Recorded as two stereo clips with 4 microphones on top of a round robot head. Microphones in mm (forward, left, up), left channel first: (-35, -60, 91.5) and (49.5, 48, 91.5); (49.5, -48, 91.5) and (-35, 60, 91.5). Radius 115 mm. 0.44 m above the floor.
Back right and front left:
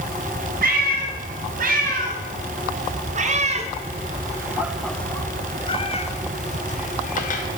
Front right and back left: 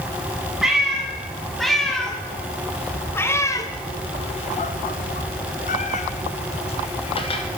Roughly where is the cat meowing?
Ahead left.